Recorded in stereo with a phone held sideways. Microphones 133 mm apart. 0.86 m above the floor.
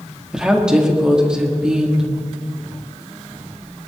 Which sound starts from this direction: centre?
A woman speaking, at 0.3 s.